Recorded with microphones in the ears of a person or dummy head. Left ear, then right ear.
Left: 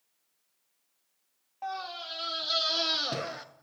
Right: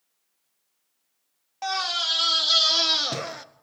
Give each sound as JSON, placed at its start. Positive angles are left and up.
{"t": 1.6, "sound": "a scream", "side_deg": -60, "distance_m": 0.8}